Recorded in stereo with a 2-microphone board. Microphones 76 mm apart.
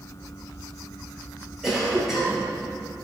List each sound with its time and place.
1.6 s a cough: 5° right (ahead or behind), 5 m